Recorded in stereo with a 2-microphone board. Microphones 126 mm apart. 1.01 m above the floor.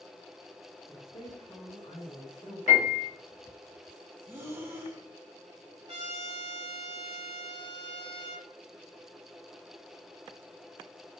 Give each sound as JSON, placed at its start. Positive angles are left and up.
{"t": 0.9, "sound": "a woman speaking", "side_deg": 55, "distance_m": 2.0}
{"t": 2.7, "sound": "a piano", "side_deg": 70, "distance_m": 2.0}
{"t": 4.3, "sound": "breathing", "side_deg": -20, "distance_m": 0.9}
{"t": 5.9, "sound": "a trumpet", "side_deg": -55, "distance_m": 1.4}